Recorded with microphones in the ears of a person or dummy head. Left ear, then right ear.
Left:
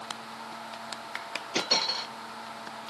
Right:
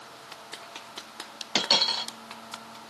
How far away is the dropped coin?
About 1.7 m.